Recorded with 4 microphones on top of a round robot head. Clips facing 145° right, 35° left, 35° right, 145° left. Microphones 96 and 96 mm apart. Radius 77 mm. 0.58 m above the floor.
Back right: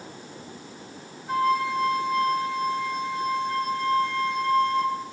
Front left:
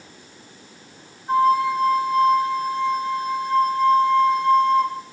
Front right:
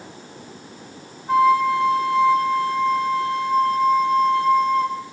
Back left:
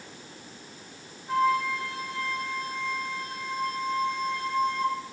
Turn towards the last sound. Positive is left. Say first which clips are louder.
# front left 6 dB, front right 9 dB
turn(degrees=-25)